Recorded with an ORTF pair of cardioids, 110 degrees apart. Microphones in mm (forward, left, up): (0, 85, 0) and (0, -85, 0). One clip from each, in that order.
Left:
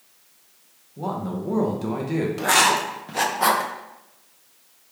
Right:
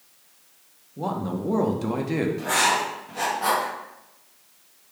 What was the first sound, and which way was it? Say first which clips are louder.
A man speaking: even; 10° right.